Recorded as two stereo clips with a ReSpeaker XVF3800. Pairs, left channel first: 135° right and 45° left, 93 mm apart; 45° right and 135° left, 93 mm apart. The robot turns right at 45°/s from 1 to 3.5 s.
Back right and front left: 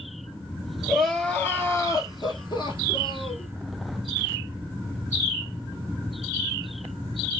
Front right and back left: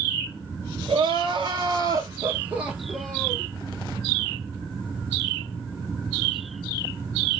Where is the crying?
140° left, 1.1 m; by 3.5 s 110° right, 1.1 m.